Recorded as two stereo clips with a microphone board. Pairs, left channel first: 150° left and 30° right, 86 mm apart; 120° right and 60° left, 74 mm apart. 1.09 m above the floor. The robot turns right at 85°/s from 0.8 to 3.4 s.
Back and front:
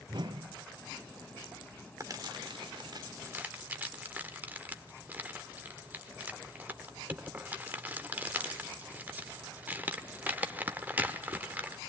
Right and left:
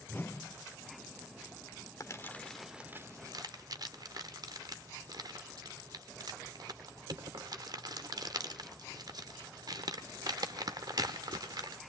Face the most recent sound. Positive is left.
turn(degrees=35)